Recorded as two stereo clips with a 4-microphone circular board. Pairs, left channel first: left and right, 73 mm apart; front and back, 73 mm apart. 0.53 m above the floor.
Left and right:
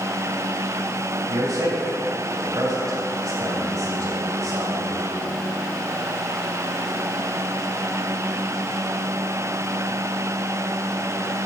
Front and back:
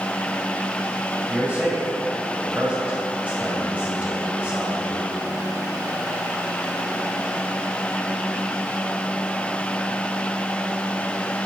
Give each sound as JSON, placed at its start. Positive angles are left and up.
{"t": 1.3, "sound": "a man speaking", "azimuth_deg": -110, "distance_m": 2.0}